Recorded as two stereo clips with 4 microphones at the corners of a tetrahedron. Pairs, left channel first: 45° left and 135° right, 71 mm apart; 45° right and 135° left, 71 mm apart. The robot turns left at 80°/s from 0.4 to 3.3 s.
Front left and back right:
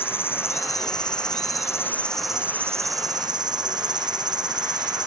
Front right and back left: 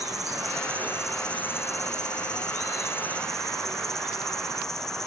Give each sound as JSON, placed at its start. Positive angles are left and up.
{"t": 0.0, "sound": "an insect", "azimuth_deg": 100}